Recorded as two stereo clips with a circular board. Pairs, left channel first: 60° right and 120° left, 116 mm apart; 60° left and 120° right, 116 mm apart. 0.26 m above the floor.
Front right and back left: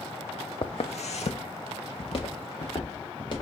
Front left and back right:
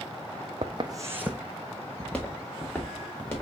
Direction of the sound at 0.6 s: 95° right.